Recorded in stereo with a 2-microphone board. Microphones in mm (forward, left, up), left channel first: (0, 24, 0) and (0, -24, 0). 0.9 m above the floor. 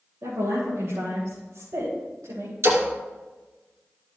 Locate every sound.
0.2 s a woman speaking: 75° right (ahead or behind), 3.5 m; by 2.5 s 80° right, 3.5 m
2.6 s a splash: 75° right (ahead or behind), 2.5 m